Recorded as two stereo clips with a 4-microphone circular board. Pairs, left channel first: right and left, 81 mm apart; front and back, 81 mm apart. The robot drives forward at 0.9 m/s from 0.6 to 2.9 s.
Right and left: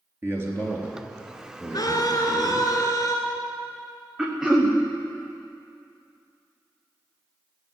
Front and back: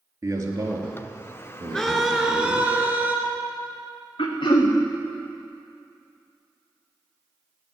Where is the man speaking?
140° left, 2.5 m; by 2.7 s 155° left, 4 m.